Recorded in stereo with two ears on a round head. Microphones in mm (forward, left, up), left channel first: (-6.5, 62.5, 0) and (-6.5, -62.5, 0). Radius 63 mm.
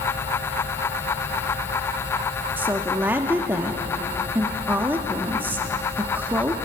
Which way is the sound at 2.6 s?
15° right (ahead or behind).